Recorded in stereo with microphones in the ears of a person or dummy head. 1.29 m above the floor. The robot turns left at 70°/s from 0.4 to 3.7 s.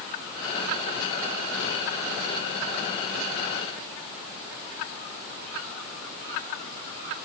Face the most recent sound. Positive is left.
No sound to turn to.